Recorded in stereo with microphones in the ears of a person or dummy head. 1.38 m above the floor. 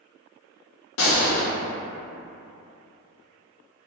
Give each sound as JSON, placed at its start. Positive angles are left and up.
{"t": 1.0, "sound": "a gunshot", "side_deg": 60, "distance_m": 0.6}